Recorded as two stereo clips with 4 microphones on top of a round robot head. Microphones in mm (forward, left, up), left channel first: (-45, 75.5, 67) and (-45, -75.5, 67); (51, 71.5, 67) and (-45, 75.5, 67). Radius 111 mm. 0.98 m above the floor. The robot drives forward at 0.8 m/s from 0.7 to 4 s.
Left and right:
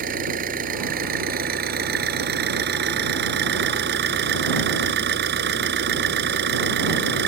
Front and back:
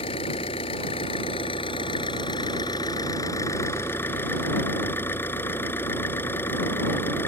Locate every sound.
0.0 s an engine running: 50° right; by 7.3 s 80° right